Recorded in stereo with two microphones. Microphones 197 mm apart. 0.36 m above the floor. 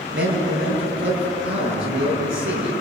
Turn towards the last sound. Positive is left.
turn(degrees=-75)  # may be behind; listen again after turning